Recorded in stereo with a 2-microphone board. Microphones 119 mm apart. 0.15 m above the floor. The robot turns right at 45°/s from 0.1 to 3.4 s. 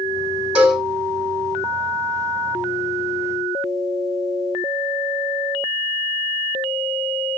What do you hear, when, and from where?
0.6 s a cowbell: 10° right (ahead or behind), 3.5 m; by 0.8 s 5° left (ahead or behind), 3.5 m